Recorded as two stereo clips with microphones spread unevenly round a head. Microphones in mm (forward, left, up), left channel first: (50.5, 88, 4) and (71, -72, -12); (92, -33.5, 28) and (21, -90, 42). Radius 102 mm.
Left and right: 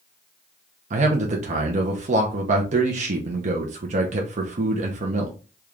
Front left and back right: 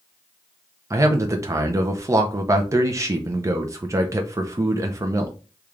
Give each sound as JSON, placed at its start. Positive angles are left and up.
{"t": 0.9, "sound": "a man speaking", "azimuth_deg": -85, "distance_m": 0.6}